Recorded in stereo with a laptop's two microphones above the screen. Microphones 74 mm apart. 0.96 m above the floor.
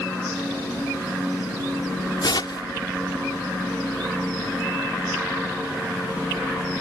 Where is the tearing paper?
80° left.